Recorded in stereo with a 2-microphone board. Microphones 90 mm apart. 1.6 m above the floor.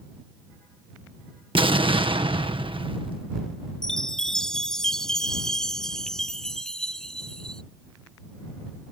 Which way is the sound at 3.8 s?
5° left (ahead or behind).